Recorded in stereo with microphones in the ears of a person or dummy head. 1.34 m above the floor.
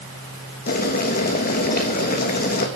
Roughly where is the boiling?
Left.